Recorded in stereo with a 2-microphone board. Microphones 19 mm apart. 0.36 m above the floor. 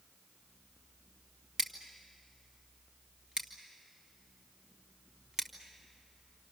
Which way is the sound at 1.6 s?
35° right (ahead or behind).